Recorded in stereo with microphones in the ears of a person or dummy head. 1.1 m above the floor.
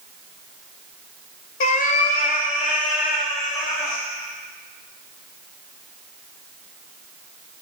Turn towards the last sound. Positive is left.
turn(degrees=45)  # may be behind; listen again after turning